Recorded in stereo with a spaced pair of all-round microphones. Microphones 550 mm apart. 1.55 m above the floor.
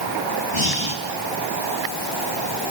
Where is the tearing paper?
No tearing paper in this recording.